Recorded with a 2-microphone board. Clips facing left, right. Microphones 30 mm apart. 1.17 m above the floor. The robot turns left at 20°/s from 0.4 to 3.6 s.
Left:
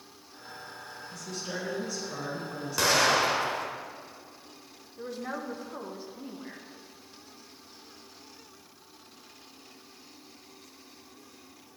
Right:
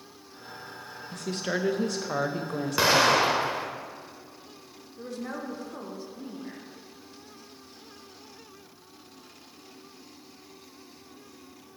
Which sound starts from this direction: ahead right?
A woman speaking, at 1.1 s.